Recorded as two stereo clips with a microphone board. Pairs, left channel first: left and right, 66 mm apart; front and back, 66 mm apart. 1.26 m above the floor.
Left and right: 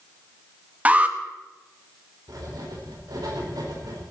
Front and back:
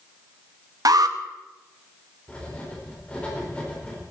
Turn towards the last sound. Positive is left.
turn(degrees=-75)